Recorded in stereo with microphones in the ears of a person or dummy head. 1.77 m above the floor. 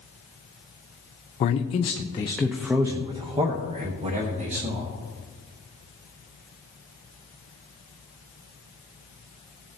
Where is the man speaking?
35° left (ahead or behind), 0.7 m; by 4.9 s 35° right (ahead or behind), 1.5 m.